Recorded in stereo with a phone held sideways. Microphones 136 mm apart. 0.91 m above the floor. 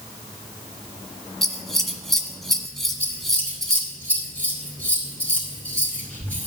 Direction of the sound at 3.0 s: 10° left (ahead or behind).